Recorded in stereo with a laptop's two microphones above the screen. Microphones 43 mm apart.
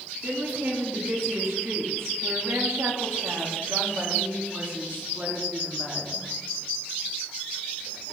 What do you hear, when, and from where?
0.2 s a woman speaking: 65° right (ahead or behind), 2.5 m; by 6.2 s 35° right (ahead or behind), 3 m